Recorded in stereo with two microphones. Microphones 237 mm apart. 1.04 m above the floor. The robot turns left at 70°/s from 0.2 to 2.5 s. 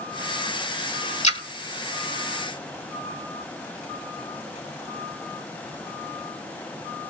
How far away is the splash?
About 1.6 m.